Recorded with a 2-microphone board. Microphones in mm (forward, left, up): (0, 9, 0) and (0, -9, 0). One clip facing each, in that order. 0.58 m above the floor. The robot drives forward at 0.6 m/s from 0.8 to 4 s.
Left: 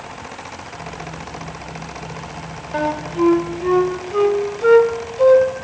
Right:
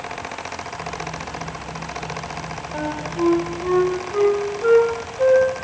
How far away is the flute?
About 0.7 m.